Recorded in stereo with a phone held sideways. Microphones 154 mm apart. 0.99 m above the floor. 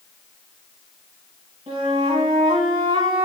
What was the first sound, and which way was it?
A flute, 35° right (ahead or behind).